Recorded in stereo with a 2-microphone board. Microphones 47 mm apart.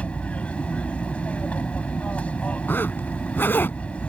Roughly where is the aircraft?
Left.